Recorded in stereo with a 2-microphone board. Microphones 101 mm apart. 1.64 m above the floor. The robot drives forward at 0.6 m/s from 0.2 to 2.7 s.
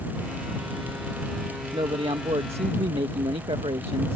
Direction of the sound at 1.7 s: 60° right (ahead or behind).